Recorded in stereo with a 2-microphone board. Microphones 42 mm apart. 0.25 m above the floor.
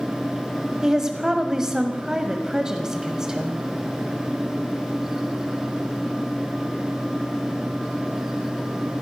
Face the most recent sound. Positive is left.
turn(degrees=-15)  # may be behind; listen again after turning